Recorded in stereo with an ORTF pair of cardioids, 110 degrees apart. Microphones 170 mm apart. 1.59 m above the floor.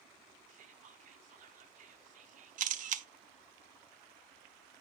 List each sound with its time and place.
0.5 s whispering: 55° right, 0.8 m
2.6 s a camera shutter: 50° right, 0.6 m